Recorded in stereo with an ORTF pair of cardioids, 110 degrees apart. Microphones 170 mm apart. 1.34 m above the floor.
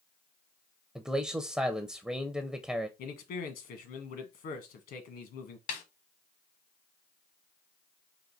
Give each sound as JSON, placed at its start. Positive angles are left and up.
{"t": 0.9, "sound": "a man speaking", "azimuth_deg": -5, "distance_m": 0.6}
{"t": 3.0, "sound": "a man speaking", "azimuth_deg": 70, "distance_m": 1.5}
{"t": 5.7, "sound": "a snare drum", "azimuth_deg": 65, "distance_m": 1.3}